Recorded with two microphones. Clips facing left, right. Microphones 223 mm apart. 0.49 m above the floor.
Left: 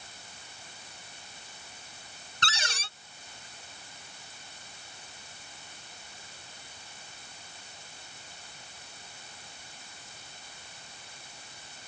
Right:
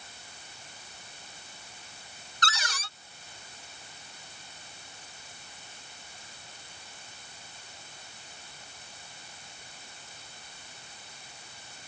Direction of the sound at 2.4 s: 30° left (ahead or behind).